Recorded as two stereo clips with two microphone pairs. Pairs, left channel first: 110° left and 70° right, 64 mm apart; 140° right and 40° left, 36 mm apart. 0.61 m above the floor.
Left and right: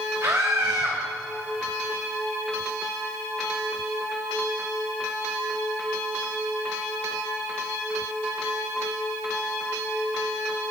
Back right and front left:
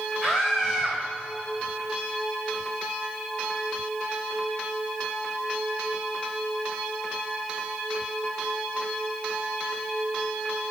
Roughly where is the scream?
Ahead right.